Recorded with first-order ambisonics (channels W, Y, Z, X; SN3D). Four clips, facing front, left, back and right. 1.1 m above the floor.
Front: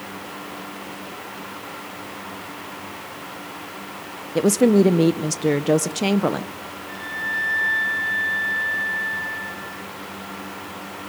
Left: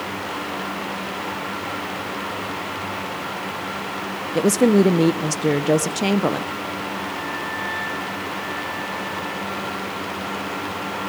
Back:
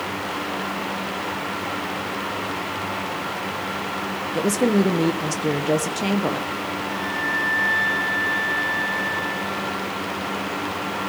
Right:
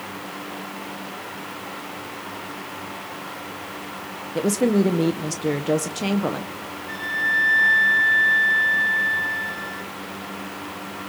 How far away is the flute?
About 2.0 m.